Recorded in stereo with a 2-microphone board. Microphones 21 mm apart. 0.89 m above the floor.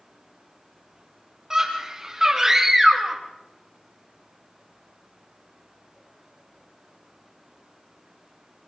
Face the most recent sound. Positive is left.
turn(degrees=-20)  # may be behind; listen again after turning